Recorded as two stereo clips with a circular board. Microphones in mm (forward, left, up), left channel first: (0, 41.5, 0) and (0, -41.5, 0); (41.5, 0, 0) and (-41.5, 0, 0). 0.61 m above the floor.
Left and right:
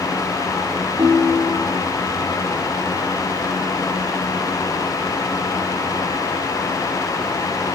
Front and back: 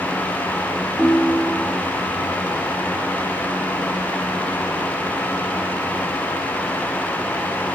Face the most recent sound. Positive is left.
turn(degrees=-90)